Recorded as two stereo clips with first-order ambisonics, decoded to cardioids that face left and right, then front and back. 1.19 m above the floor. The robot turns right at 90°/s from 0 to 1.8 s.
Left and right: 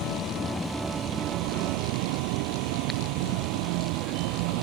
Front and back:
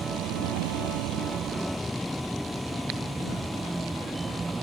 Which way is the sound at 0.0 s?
120° left.